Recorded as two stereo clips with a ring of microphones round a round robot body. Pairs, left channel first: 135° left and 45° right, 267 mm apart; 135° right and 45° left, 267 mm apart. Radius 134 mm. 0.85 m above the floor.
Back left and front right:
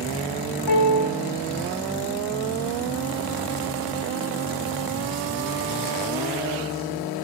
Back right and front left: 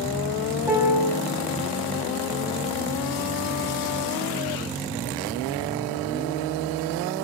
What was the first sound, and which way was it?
A piano, 130° left.